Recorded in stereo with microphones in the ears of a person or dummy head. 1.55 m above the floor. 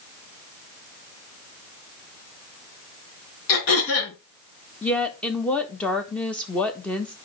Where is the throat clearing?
65° left (ahead or behind), 4 m.